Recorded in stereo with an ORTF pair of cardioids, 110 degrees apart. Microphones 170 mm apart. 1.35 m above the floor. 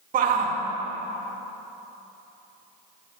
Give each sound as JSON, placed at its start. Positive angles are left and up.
{"t": 0.1, "sound": "a shout", "azimuth_deg": -55, "distance_m": 2.0}